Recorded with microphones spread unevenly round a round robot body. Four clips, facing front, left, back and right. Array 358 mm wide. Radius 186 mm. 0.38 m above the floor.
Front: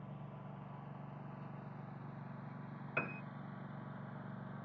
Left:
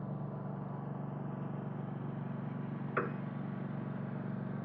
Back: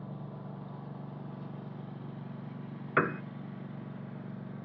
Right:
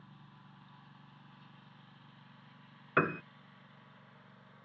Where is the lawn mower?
125° left; by 4.7 s 115° left.